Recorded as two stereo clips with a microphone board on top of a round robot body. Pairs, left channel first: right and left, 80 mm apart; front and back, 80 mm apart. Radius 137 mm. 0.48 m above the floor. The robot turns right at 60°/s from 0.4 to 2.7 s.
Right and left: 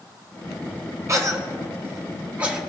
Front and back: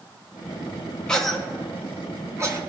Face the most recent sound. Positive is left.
turn(degrees=175)